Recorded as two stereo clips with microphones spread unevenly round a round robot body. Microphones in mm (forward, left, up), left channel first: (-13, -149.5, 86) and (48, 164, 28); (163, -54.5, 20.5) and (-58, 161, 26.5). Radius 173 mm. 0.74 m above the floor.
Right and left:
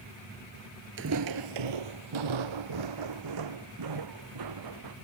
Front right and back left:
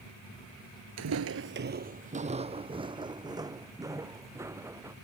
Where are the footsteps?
140° left; by 4.9 s 55° left.